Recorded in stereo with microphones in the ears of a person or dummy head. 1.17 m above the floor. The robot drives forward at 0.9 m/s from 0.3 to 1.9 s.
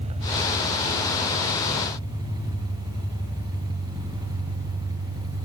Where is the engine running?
30° right (ahead or behind), 2 m; by 5.5 s 20° right (ahead or behind), 3.5 m.